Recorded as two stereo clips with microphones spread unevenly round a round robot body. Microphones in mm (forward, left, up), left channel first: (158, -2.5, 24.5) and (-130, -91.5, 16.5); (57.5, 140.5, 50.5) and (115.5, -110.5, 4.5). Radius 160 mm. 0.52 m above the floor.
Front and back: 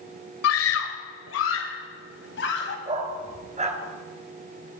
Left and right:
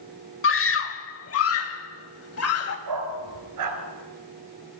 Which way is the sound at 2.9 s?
95° right.